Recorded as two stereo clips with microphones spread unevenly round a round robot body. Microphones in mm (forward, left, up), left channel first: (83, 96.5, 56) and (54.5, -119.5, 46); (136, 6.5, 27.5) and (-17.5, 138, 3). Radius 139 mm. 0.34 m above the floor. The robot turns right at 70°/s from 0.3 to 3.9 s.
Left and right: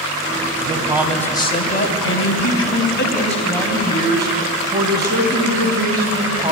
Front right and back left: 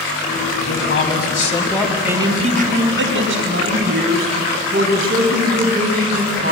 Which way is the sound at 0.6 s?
45° right.